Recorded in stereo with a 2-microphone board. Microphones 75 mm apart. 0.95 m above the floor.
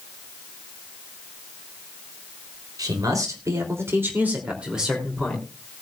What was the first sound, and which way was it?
A man speaking, 60° right (ahead or behind).